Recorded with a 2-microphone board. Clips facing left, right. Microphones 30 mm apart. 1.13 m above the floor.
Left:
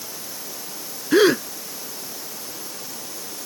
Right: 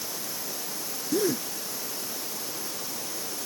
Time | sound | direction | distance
1.1 | a gasp | 85° left | ?